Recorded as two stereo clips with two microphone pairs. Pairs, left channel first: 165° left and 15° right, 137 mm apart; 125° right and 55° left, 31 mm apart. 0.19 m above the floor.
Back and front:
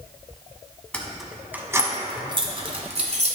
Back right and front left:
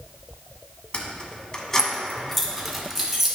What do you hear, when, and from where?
0.9 s keys jangling: 120° right, 1.0 m; by 3.4 s 30° right, 1.6 m